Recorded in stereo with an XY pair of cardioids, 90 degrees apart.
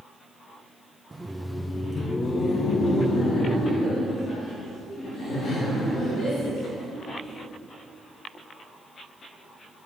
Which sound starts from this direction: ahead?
Laughter, at 1.1 s.